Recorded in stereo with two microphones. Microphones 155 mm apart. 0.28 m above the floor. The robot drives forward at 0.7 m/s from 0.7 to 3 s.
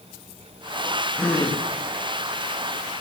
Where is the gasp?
10° left (ahead or behind), 3.5 m.